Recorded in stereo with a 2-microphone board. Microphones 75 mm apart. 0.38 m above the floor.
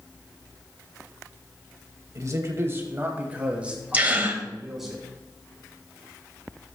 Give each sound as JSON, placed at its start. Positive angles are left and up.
{"t": 2.1, "sound": "a man speaking", "side_deg": -45, "distance_m": 2.0}
{"t": 3.9, "sound": "a gasp", "side_deg": -25, "distance_m": 1.5}